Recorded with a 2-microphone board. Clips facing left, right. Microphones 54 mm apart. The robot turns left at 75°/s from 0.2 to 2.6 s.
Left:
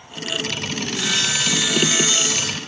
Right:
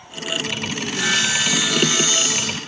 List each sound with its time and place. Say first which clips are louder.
0.8 s sawing: right 4 dB; 120° right, 3 m; by 2.6 s 110° left, 3 m